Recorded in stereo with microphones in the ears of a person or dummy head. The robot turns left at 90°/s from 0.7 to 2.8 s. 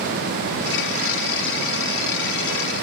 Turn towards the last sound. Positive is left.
No sound to turn to.